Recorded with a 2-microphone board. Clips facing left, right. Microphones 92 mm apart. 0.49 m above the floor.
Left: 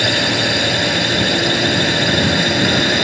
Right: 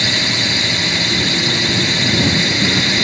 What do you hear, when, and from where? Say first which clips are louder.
0.0 s a drone: left 4 dB; 50° left (ahead or behind); by 3.0 s 45° left (ahead or behind)